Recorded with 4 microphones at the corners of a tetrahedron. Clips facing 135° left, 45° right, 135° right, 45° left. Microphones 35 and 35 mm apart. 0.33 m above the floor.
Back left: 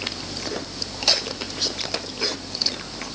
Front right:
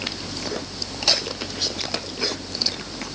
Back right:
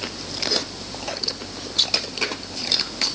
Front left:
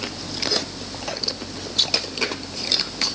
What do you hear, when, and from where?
Only background noise.